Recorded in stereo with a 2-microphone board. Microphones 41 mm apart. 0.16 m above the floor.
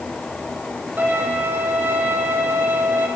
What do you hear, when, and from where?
1.0 s a violin: 60° right (ahead or behind), 3 m